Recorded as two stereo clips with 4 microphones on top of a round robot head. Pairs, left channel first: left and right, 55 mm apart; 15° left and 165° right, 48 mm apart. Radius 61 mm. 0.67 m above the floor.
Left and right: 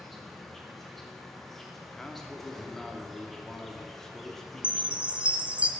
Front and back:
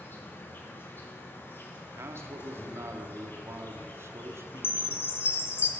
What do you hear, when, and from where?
0.0 s an insect: 5° left, 2.0 m
1.9 s a man speaking: 170° left, 1.3 m
4.6 s a chime: 25° right, 1.1 m